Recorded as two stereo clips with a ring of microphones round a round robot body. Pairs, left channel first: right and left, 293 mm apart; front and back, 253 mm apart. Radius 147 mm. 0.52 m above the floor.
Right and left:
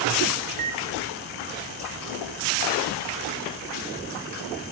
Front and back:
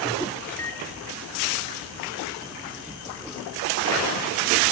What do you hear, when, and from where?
0.5 s a microwave: 80° left, 1.0 m